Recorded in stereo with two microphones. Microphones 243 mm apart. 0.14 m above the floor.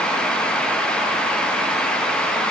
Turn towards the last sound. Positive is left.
No sound to turn to.